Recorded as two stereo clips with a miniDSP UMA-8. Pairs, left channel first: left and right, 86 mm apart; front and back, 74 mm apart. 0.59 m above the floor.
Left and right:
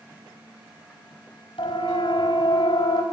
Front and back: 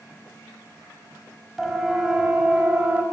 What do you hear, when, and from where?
1.6 s a siren: 95° left, 5.5 m; by 3.0 s 110° left, 4.5 m